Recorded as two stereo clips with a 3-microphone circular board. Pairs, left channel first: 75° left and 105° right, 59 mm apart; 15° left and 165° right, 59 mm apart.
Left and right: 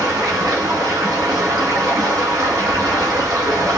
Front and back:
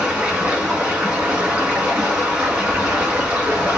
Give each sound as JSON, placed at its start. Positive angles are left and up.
{"t": 0.0, "sound": "running water", "azimuth_deg": -100, "distance_m": 1.9}